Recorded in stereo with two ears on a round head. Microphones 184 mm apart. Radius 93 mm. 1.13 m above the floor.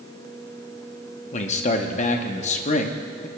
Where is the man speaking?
35° left (ahead or behind), 0.7 m.